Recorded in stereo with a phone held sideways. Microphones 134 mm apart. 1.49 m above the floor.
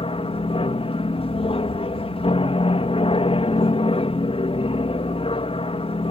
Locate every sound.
0.0 s an aircraft: 45° left (ahead or behind)